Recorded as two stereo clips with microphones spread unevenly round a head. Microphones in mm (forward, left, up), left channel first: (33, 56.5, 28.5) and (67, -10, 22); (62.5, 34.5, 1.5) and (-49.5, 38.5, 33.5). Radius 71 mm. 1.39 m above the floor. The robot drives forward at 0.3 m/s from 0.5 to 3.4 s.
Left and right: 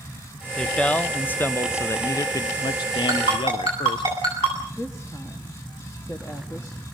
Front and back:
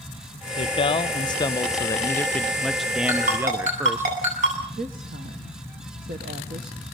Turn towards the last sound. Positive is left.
turn(degrees=-175)